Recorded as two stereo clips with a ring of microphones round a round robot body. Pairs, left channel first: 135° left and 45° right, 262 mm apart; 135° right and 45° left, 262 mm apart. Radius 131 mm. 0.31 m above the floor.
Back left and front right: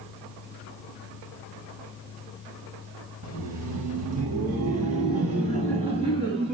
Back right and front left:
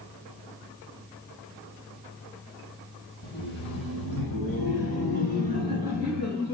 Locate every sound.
3.2 s laughter: 95° right, 1.8 m; by 6.5 s 115° right, 3.5 m